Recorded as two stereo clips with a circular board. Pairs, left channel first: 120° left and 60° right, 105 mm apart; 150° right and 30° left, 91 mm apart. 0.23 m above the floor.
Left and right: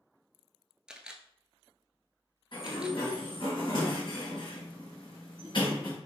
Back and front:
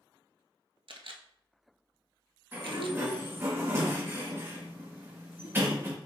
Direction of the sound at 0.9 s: 20° left.